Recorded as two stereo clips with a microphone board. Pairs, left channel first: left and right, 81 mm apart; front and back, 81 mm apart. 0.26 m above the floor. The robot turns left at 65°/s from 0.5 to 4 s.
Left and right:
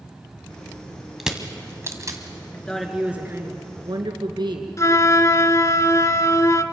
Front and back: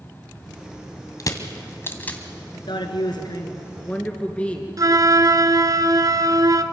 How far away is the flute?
About 0.9 m.